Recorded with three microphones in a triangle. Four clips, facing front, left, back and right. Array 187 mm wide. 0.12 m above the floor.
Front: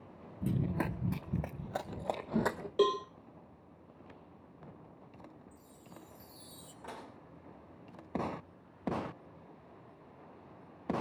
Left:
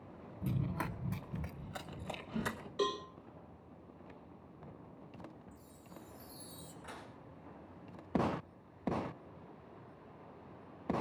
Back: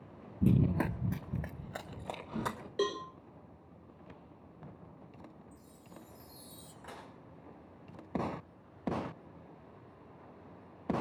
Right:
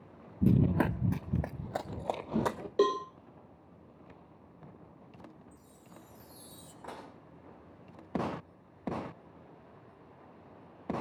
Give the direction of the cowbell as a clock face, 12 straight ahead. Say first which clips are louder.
Right 8 dB, front 5 dB; 2 o'clock.